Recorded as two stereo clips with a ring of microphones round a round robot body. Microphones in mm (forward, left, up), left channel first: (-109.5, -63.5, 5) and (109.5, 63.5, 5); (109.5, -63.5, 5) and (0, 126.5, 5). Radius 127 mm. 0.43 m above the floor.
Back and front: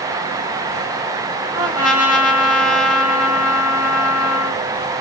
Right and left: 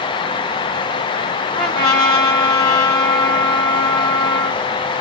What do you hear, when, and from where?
1.5 s a trumpet: 5° right, 1.6 m